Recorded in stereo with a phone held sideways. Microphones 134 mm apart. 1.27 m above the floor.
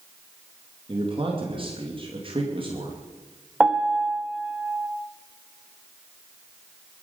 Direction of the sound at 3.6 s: 5° right (ahead or behind).